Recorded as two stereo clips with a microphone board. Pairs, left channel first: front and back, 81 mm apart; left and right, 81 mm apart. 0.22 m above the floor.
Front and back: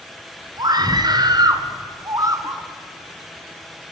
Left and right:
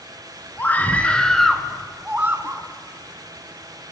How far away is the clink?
I don't hear a clink.